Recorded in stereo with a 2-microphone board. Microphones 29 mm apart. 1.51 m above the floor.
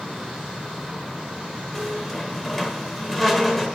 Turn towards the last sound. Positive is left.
turn(degrees=10)  # may be behind; listen again after turning